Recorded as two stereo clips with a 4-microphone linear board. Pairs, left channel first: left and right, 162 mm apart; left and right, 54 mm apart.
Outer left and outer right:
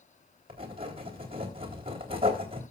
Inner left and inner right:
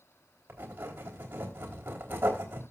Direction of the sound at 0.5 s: 35° right (ahead or behind).